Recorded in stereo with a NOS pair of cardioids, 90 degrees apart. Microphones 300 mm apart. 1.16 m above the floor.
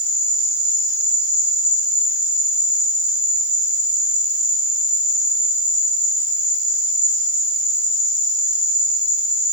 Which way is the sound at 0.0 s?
10° left.